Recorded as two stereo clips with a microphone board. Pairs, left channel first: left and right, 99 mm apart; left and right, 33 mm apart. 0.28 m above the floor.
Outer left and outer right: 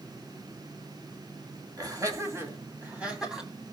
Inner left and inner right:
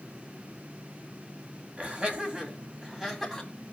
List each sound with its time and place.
1.8 s laughter: 40° right (ahead or behind), 2 m; by 3.5 s 5° right (ahead or behind), 2.5 m